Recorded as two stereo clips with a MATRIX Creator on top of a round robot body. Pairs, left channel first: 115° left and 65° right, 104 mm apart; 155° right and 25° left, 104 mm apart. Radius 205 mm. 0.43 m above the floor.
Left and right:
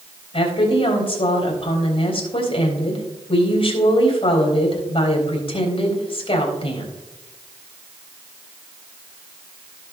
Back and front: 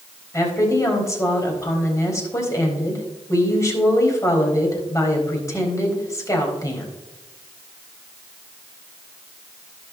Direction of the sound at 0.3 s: 140° left.